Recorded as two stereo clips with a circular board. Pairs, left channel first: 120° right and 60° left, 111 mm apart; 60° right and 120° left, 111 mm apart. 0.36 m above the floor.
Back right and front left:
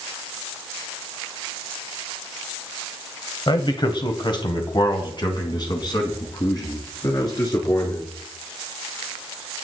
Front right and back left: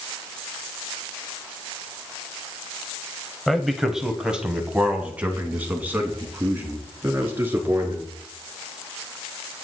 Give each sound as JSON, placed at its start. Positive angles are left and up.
{"t": 3.5, "sound": "a man speaking", "azimuth_deg": -150, "distance_m": 1.8}